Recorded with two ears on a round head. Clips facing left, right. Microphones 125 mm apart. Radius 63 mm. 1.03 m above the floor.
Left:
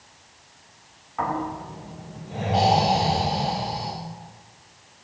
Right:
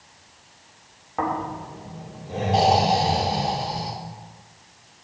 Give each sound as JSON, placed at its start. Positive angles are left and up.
{"t": 1.2, "sound": "snoring", "side_deg": -50, "distance_m": 2.5}